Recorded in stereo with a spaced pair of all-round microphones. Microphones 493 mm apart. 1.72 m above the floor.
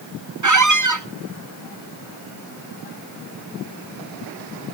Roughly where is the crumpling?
I don't hear crumpling.